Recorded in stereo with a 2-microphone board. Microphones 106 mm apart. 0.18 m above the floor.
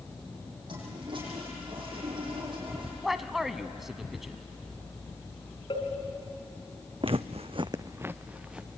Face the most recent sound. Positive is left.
turn(degrees=-5)  # may be behind; listen again after turning